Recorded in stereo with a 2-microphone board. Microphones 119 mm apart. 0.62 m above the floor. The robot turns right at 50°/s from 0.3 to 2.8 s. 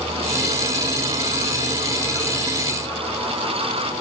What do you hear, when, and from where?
Only background noise.